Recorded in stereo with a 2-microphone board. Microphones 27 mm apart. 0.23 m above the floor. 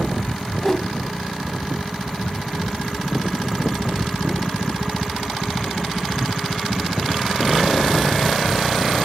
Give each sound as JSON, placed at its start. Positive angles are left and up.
{"t": 0.6, "sound": "a whoosh", "side_deg": 20, "distance_m": 1.1}